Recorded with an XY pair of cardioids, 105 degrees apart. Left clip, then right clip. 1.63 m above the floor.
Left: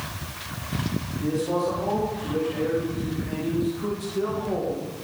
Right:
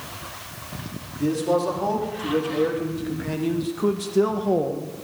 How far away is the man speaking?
About 4 m.